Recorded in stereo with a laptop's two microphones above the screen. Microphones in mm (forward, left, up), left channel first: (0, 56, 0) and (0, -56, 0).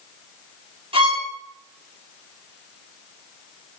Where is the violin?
55° right (ahead or behind), 3 m.